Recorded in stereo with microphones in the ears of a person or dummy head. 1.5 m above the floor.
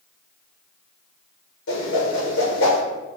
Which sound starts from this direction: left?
A whoosh, at 1.7 s.